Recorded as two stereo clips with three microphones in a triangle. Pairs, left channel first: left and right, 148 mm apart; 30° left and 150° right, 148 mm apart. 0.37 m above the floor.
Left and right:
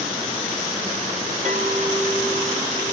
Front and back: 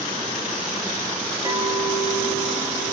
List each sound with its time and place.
1.4 s a clink: 75° right, 1.6 m